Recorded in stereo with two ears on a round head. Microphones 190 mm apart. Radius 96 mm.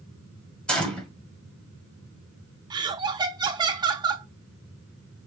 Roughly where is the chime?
No chime in this recording.